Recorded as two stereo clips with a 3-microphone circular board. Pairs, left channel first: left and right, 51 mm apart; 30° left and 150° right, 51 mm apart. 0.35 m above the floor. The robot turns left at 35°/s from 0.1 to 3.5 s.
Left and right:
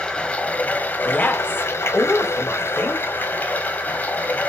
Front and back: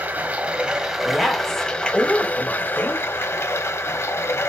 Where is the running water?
160° left, 1.3 m; by 4.5 s 40° left, 1.3 m.